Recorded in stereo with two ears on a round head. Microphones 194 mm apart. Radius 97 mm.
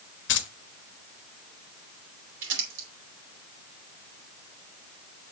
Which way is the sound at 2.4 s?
60° right (ahead or behind).